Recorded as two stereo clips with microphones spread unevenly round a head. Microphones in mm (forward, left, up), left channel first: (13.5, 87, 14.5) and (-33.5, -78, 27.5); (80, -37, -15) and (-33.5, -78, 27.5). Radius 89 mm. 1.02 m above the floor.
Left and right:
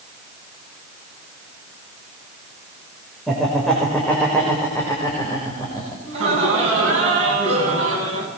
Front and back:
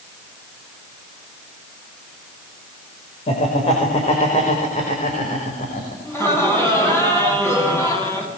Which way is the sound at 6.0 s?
50° right.